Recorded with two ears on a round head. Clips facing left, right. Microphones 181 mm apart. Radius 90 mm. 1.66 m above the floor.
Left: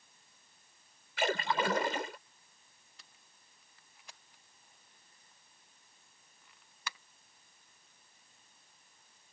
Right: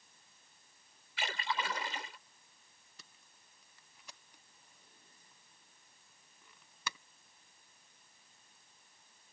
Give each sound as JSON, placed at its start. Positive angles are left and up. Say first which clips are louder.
{"t": 1.2, "sound": "a splash", "louder": "left 7 dB", "side_deg": 45}
{"t": 3.0, "sound": "tape being pulled", "louder": "right 3 dB", "side_deg": -85}